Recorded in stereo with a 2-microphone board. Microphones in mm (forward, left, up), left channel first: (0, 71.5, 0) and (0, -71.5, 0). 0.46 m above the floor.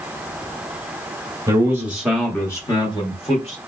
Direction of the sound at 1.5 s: 25° right (ahead or behind).